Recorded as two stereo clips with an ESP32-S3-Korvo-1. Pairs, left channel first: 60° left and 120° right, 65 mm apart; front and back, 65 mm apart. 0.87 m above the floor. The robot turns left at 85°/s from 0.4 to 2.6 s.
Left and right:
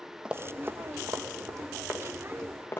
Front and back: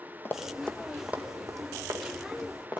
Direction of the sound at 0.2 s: 45° right.